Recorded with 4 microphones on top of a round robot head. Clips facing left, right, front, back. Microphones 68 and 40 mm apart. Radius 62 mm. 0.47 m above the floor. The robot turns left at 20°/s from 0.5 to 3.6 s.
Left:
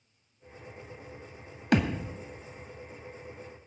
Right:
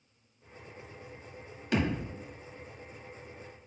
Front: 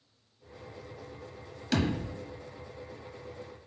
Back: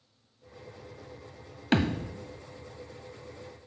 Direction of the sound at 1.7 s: 120° left.